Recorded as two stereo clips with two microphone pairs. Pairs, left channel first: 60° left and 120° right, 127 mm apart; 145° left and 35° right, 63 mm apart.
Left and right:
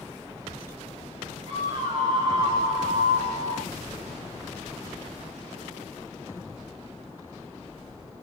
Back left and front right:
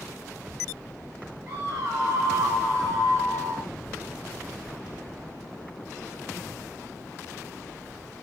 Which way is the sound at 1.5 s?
65° right.